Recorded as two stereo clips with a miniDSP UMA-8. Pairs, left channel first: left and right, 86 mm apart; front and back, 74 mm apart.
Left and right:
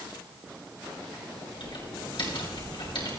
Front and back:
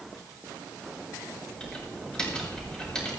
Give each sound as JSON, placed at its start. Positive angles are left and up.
{"t": 1.6, "sound": "typing on a keyboard", "azimuth_deg": 80, "distance_m": 6.5}